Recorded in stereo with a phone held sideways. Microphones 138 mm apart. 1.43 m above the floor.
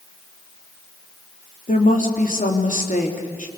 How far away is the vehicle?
I don't hear a vehicle.